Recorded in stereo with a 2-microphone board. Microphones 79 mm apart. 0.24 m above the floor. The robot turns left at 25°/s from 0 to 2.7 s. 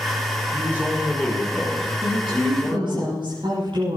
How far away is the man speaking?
About 8 m.